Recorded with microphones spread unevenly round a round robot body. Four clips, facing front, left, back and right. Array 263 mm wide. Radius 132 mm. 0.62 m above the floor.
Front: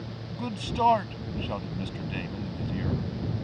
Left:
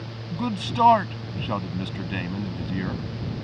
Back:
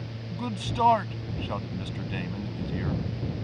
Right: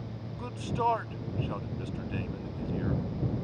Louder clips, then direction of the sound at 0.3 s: Left 9 dB, back 1 dB; 90° left.